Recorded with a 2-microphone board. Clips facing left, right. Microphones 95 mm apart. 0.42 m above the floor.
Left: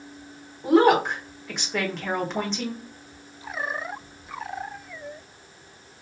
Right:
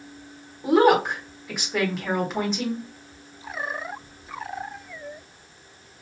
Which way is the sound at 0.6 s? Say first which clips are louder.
Even; 5° right (ahead or behind).